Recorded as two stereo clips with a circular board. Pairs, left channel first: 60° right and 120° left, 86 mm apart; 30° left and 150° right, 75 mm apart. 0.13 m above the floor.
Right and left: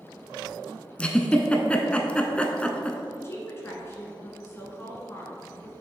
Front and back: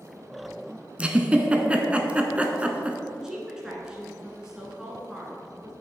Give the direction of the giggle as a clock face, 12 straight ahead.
4 o'clock.